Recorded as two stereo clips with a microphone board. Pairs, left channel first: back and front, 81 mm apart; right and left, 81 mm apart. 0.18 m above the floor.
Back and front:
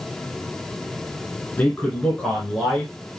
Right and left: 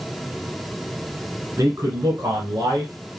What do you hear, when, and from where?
1.6 s a man speaking: 120° left, 2 m; by 3.2 s 80° left, 2.5 m